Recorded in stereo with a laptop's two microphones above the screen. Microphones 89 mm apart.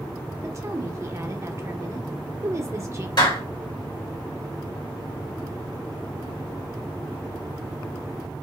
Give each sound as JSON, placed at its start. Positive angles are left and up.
{"t": 0.4, "sound": "a woman speaking", "side_deg": -30, "distance_m": 0.8}
{"t": 3.2, "sound": "a clap", "side_deg": 60, "distance_m": 1.9}